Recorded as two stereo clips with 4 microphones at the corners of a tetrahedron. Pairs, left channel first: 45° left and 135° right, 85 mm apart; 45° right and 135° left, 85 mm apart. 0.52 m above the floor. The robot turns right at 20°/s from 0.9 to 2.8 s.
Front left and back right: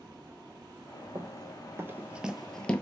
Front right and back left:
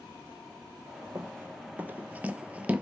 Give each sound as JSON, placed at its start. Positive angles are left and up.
{"t": 1.1, "sound": "running footsteps", "azimuth_deg": -175, "distance_m": 0.8}